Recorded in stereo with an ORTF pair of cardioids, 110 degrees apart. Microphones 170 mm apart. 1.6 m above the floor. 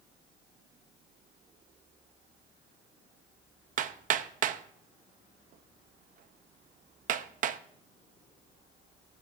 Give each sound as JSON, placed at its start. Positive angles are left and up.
{"t": 3.8, "sound": "hammering", "azimuth_deg": -50, "distance_m": 0.7}